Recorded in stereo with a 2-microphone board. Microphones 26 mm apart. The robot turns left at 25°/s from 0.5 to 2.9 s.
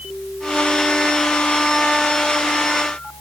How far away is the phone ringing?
I don't hear a phone ringing.